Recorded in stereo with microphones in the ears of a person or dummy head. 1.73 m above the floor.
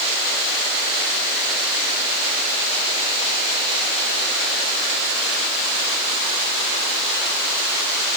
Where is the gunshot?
No gunshot in this recording.